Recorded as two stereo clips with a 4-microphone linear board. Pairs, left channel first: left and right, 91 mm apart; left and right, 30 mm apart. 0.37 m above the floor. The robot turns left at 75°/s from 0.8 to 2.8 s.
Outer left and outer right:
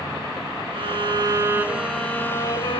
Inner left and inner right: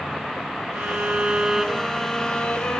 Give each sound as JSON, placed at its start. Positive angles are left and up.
{"t": 0.7, "sound": "a violin", "azimuth_deg": -100, "distance_m": 0.5}